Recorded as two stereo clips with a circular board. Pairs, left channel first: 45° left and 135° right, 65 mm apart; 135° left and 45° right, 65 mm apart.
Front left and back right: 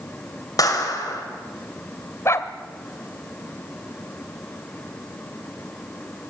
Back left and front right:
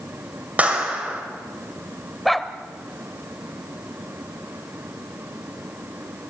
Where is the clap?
25° left, 5 m.